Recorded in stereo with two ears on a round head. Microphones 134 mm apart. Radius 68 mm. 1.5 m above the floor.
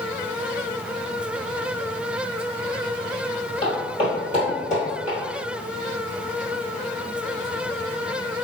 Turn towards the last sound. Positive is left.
turn(degrees=50)  # may be behind; listen again after turning